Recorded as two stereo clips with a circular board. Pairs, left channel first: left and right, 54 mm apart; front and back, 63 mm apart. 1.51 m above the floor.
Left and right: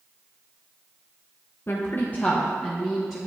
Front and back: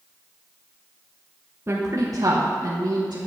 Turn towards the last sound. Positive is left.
turn(degrees=175)